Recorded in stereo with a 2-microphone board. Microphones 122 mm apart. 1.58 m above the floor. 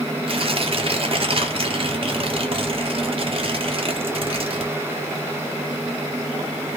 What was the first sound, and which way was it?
Tearing paper, 50° right (ahead or behind).